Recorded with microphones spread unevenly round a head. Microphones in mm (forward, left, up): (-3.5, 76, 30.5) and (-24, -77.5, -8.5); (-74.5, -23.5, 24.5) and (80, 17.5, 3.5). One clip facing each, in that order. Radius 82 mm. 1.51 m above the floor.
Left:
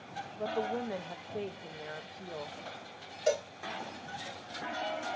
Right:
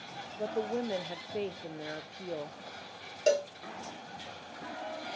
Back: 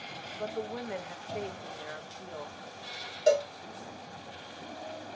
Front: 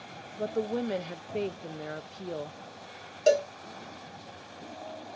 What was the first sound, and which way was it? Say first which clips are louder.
A woman speaking: right 1 dB, front 6 dB; 35° right.